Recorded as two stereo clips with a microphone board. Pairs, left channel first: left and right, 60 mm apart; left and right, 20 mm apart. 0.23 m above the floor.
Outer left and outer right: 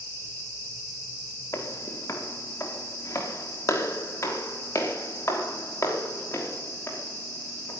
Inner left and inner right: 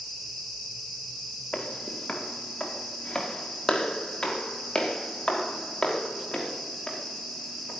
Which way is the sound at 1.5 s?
60° left (ahead or behind).